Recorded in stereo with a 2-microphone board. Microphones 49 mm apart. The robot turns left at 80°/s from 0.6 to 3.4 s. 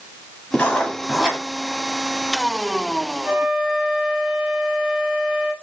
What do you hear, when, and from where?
0.5 s writing: 40° left, 2.0 m; by 1.4 s 25° right, 2.0 m
3.2 s a flute: 25° right (ahead or behind), 1.5 m; by 5.5 s 15° right (ahead or behind), 1.5 m